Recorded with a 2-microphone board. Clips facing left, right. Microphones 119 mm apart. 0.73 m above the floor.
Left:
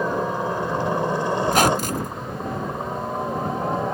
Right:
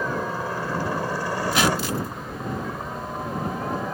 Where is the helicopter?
20° left (ahead or behind); by 4.0 s 25° left (ahead or behind).